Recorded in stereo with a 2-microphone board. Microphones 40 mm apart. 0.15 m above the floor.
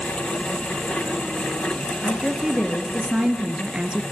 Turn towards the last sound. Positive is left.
turn(degrees=-25)  # may be behind; listen again after turning